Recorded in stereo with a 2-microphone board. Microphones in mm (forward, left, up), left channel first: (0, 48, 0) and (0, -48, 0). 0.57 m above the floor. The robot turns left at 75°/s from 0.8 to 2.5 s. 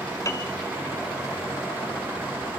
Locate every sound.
0.2 s a piano: 35° left (ahead or behind), 1.4 m